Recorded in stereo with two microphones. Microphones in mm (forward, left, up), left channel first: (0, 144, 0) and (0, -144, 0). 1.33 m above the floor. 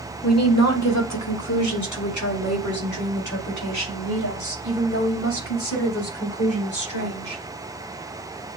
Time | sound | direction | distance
0.2 | a woman speaking | 60° left (ahead or behind) | 1.0 m